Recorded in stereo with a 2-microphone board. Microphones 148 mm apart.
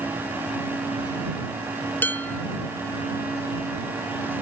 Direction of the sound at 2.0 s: 10° left (ahead or behind).